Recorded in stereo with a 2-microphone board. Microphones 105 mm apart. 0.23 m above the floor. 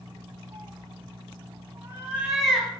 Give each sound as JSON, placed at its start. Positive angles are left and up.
{"t": 0.5, "sound": "a cat meowing", "side_deg": -60, "distance_m": 1.0}